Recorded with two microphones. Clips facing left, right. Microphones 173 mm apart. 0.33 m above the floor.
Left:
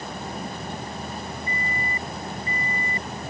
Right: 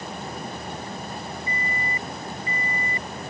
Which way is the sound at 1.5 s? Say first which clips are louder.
Even; 40° left (ahead or behind).